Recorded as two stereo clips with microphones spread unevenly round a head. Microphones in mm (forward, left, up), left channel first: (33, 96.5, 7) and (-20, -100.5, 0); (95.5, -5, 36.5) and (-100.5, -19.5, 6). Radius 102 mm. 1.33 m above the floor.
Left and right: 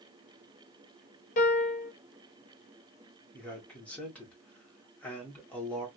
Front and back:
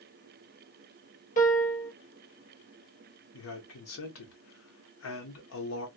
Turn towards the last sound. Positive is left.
turn(degrees=-10)